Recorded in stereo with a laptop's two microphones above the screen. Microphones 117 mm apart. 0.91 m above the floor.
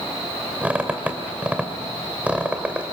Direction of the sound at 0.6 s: 10° right (ahead or behind).